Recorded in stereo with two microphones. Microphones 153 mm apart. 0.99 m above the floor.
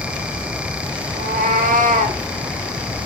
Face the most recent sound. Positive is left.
turn(degrees=-50)  # may be behind; listen again after turning